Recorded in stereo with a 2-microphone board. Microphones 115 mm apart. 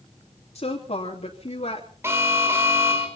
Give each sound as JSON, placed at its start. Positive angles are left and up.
{"t": 0.6, "sound": "a woman speaking", "side_deg": 65, "distance_m": 3.0}
{"t": 2.0, "sound": "an alarm", "side_deg": -20, "distance_m": 4.5}